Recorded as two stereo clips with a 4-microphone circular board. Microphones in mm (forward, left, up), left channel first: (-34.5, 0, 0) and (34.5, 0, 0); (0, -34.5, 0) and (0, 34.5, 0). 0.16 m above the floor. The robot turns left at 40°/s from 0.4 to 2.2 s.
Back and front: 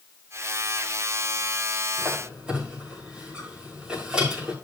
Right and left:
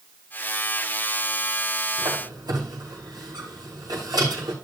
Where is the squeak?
85° left, 5.5 m; by 4.5 s 75° left, 5.5 m.